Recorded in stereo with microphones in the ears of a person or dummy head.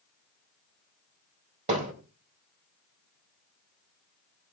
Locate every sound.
1.7 s hammering: 35° right (ahead or behind), 4 m